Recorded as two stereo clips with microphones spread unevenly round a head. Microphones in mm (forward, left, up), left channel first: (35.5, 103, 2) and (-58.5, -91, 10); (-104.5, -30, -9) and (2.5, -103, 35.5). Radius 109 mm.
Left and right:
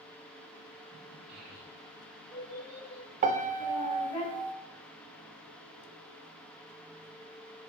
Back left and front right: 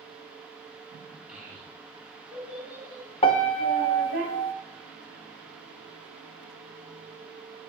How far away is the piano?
About 0.8 m.